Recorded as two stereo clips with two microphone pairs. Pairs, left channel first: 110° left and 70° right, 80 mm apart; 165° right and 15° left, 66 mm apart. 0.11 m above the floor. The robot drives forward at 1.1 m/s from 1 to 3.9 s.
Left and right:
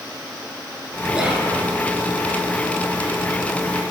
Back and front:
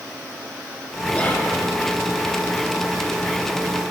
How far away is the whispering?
About 1.1 m.